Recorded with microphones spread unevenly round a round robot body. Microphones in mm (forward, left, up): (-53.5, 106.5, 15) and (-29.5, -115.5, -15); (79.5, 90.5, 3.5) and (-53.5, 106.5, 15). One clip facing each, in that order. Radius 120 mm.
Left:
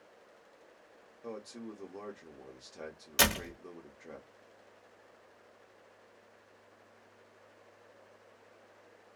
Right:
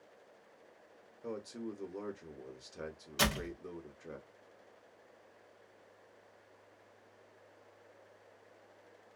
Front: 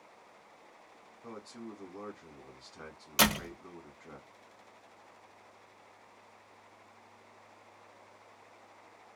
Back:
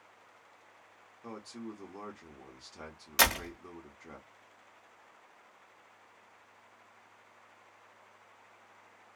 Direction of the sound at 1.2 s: 120° right.